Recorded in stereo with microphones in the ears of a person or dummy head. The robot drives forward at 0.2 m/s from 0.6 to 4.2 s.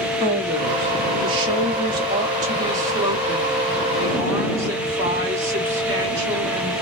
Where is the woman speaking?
30° right (ahead or behind), 0.7 m; by 6.7 s 15° right (ahead or behind), 1.3 m.